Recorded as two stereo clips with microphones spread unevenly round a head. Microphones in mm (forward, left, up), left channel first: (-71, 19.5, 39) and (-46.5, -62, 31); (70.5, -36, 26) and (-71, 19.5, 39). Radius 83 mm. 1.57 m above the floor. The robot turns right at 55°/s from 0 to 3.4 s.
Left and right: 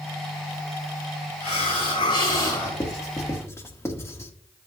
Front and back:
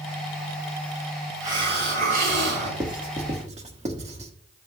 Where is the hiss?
85° left, 5 m; by 2.7 s 155° left, 5 m.